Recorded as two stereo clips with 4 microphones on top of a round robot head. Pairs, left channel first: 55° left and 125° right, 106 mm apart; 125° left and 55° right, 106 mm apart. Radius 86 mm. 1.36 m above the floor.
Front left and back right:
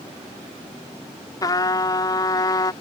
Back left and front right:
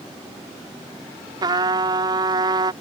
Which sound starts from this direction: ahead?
A trumpet, at 1.4 s.